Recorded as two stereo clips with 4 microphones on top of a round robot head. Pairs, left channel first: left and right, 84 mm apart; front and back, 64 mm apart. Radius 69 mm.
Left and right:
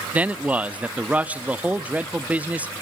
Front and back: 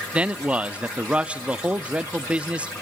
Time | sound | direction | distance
0.1 | a man speaking | 140° right | 0.6 m